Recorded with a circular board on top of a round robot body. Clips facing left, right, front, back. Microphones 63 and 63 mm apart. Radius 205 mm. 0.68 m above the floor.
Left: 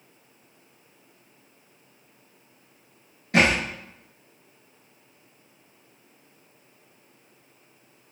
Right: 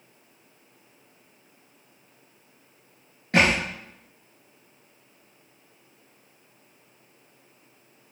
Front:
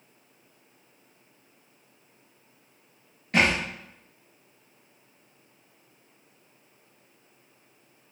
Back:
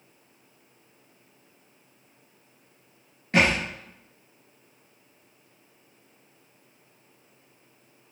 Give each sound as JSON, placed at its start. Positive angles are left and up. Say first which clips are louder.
{"t": 3.3, "sound": "a thud", "louder": "even, back 1 dB", "azimuth_deg": -115, "distance_m": 0.7}